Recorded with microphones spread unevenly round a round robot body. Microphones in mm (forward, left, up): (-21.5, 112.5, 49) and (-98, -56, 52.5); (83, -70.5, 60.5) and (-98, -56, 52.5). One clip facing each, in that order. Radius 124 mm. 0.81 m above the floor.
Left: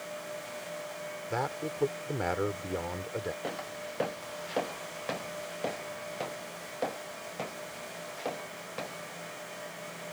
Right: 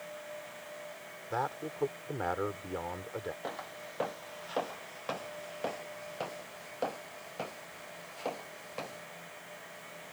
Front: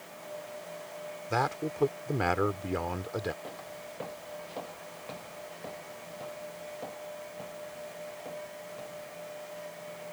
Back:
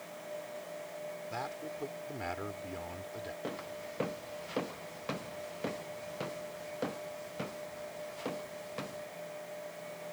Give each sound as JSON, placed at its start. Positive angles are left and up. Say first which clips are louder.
{"t": 1.3, "sound": "a man speaking", "louder": "left 2 dB, front 9 dB", "azimuth_deg": -5}
{"t": 3.4, "sound": "footsteps", "louder": "left 4 dB, back 2 dB", "azimuth_deg": 130}